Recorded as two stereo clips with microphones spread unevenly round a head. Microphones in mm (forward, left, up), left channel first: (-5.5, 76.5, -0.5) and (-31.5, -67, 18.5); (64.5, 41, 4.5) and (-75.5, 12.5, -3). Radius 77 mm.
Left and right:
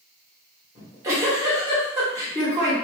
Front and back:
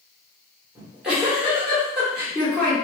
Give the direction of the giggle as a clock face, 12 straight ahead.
3 o'clock.